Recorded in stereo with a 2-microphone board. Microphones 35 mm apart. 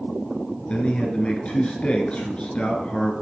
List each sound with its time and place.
0.7 s a man speaking: 30° left (ahead or behind), 1.3 m